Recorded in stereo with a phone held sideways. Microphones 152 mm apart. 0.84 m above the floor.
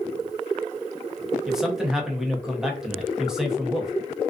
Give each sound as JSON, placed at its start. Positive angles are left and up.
{"t": 1.5, "sound": "a man speaking", "side_deg": -5, "distance_m": 0.7}